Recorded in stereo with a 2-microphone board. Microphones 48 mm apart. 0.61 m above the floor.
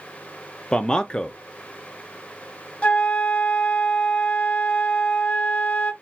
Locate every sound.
0.7 s a man speaking: 20° left (ahead or behind), 0.5 m
2.8 s a flute: 25° left (ahead or behind), 0.8 m